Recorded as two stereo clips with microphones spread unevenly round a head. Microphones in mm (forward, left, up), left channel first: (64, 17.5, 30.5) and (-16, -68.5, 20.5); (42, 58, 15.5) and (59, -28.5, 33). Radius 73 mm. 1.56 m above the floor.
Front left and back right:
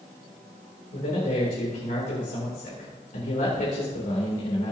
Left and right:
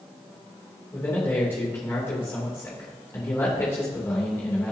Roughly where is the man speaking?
Ahead left.